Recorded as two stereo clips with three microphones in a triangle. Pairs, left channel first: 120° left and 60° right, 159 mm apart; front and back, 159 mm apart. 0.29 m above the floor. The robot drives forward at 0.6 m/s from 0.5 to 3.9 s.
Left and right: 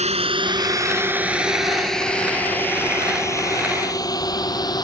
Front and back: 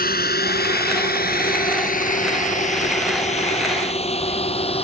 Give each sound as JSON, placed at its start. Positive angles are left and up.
{"t": 0.0, "sound": "a drone", "azimuth_deg": -15}